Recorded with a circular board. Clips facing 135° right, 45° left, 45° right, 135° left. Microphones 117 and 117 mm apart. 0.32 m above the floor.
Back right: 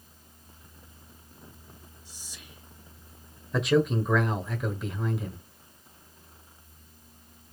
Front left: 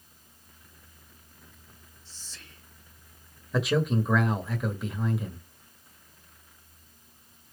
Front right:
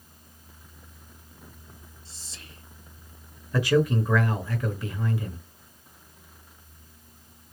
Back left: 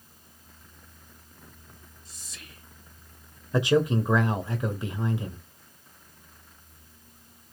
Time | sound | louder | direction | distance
2.0 | whispering | front left 1 dB, back left 1 dB | 70° right | 1.0 m
3.5 | a man speaking | back right 2 dB, even | 130° left | 0.9 m